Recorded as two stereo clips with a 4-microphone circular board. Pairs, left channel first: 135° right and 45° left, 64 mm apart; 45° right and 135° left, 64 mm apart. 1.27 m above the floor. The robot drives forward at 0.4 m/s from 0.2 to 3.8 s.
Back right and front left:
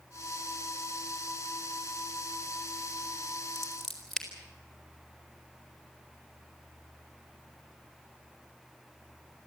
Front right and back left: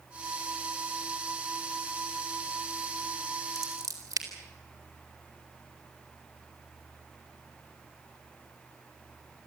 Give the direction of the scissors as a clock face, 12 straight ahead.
7 o'clock.